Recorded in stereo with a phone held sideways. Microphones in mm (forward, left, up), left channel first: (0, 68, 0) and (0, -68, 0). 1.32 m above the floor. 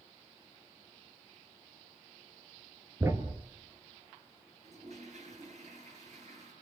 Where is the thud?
20° right (ahead or behind), 1.4 m.